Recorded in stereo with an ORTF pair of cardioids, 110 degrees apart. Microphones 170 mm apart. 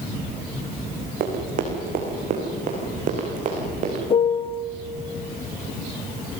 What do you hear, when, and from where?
1.2 s running footsteps: 60° right, 5.5 m; by 4.0 s 45° right, 7.5 m
4.1 s a piano: 30° left, 0.9 m